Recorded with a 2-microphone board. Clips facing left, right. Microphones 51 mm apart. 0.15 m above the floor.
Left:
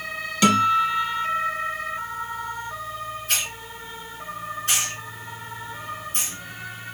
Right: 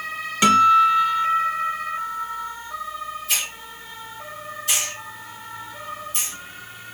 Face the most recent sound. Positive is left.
turn(degrees=40)  # may be behind; listen again after turning